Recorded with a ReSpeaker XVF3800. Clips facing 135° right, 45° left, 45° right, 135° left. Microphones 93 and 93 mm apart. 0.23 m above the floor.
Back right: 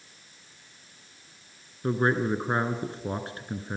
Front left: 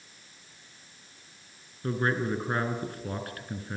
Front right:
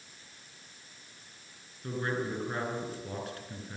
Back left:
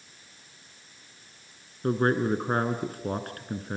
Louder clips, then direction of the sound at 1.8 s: Back right 3 dB, back left 9 dB; 165° left.